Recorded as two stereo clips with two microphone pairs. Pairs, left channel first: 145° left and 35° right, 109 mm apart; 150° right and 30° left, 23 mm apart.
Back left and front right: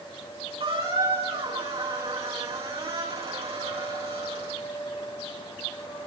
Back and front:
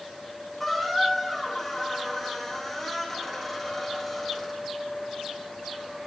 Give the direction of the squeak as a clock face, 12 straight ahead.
2 o'clock.